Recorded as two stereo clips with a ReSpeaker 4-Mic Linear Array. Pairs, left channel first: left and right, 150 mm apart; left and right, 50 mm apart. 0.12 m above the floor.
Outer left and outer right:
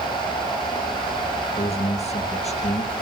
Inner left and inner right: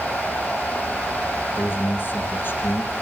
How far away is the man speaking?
About 2.5 m.